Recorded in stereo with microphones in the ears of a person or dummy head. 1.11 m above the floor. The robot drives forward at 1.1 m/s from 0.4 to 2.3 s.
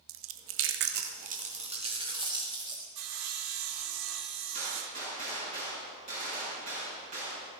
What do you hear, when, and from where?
0.1 s chewing: 65° right (ahead or behind), 1.1 m; by 2.9 s 25° right (ahead or behind), 2.5 m
3.0 s sawing: 80° right, 1.9 m
4.5 s a gunshot: 35° right (ahead or behind), 6 m